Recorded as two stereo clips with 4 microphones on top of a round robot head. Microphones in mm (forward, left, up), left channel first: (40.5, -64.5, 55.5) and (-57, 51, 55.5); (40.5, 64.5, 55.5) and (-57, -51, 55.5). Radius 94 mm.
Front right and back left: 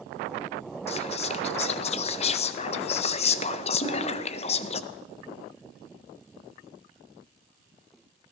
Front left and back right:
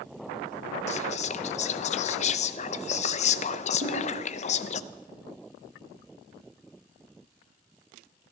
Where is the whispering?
Straight ahead, 0.5 m.